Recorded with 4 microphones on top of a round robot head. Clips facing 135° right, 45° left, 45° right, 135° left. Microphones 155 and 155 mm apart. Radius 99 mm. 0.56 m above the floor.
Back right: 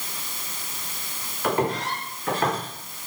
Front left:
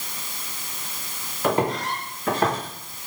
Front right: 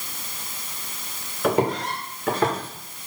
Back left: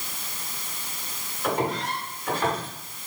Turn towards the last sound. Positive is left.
turn(degrees=-15)